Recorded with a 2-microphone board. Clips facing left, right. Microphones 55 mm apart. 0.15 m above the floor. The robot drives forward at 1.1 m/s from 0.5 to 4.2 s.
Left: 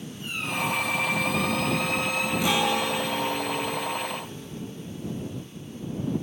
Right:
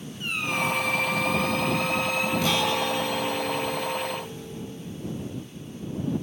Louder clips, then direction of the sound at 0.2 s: Right 2 dB; 70° right (ahead or behind).